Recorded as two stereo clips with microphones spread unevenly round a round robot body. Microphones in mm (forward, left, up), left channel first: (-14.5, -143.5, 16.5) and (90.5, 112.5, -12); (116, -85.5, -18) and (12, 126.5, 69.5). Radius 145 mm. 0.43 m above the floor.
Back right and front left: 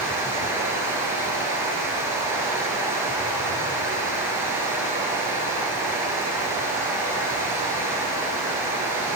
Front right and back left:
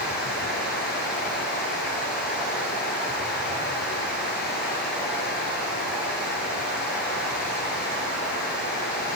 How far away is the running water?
About 7 m.